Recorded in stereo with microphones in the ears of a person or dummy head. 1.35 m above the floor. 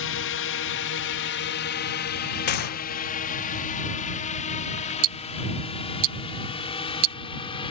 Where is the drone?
60° left (ahead or behind); by 7.7 s 20° left (ahead or behind).